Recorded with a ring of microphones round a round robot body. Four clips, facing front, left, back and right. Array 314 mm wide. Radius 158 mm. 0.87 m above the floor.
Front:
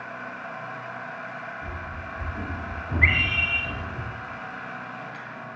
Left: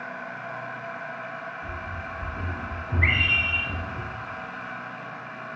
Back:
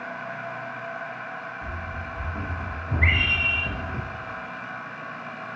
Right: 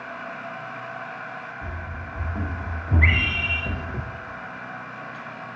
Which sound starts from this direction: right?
Running footsteps, at 1.6 s.